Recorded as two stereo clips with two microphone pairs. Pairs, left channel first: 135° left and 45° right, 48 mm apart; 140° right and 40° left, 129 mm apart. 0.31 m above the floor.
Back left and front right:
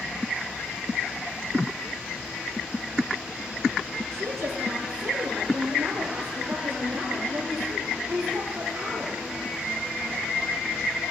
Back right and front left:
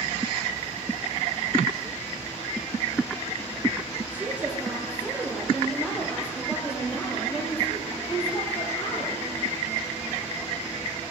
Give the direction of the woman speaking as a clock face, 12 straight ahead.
1 o'clock.